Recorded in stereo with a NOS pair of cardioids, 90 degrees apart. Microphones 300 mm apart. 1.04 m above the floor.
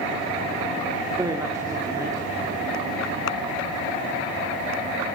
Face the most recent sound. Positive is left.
turn(degrees=-10)